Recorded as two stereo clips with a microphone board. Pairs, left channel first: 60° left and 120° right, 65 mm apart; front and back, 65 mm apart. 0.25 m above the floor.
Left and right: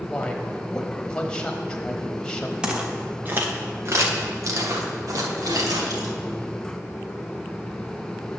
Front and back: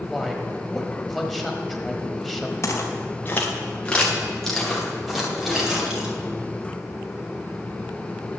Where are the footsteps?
45° right, 1.8 m; by 6.1 s 100° right, 3.5 m.